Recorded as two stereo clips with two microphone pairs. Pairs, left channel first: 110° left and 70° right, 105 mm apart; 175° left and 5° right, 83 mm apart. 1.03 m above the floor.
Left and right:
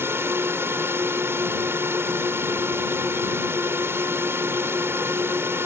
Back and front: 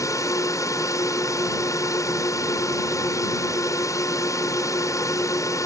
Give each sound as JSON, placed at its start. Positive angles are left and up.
{"t": 0.0, "sound": "a drone", "azimuth_deg": -135}